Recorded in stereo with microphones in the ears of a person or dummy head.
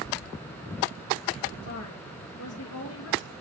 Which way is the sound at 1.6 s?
80° left.